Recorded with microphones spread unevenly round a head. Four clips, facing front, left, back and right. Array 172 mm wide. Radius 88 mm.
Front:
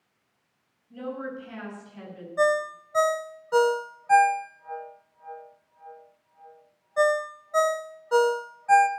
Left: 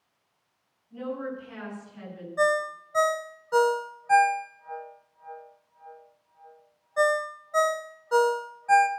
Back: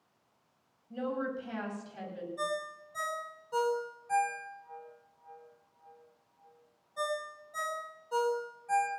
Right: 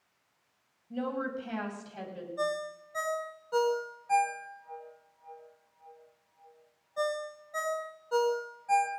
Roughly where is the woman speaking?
Right.